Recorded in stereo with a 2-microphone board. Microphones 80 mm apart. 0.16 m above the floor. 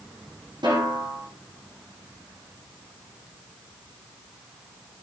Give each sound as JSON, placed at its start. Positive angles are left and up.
{"t": 0.6, "sound": "a snare drum", "side_deg": -70, "distance_m": 9.0}